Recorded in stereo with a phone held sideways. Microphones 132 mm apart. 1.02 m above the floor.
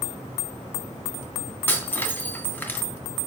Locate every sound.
1.7 s breaking glass: 15° left (ahead or behind), 2.5 m